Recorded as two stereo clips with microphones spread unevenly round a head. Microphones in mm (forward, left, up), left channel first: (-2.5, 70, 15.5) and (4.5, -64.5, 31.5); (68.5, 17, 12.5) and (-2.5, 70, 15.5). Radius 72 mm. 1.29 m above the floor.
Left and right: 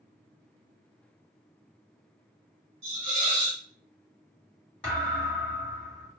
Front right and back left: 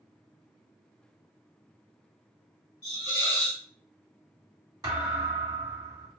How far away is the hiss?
About 1.4 m.